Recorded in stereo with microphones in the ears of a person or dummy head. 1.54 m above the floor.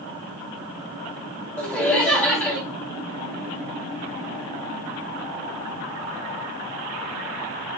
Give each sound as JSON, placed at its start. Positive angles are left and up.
{"t": 1.6, "sound": "laughter", "side_deg": 5, "distance_m": 2.5}